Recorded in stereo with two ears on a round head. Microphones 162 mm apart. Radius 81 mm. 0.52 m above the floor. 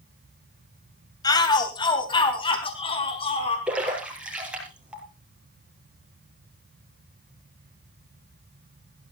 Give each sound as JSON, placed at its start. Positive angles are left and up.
{"t": 1.2, "sound": "a shout", "side_deg": 20, "distance_m": 2.5}
{"t": 3.7, "sound": "a splash", "side_deg": -5, "distance_m": 5.0}